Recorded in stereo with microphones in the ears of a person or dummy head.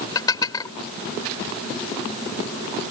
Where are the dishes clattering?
20° left (ahead or behind).